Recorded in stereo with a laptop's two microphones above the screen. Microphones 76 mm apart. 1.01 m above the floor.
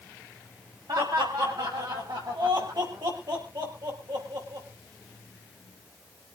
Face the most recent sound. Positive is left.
turn(degrees=-80)